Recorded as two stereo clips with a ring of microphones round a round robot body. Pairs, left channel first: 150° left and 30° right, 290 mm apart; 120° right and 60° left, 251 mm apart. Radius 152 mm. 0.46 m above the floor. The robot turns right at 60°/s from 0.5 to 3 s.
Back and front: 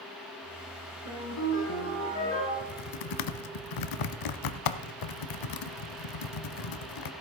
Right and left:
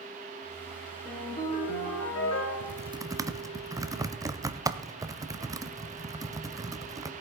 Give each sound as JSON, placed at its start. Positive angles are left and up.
{"t": 1.1, "sound": "a ringtone", "azimuth_deg": 160, "distance_m": 5.5}
{"t": 2.6, "sound": "typing on a keyboard", "azimuth_deg": 115, "distance_m": 0.7}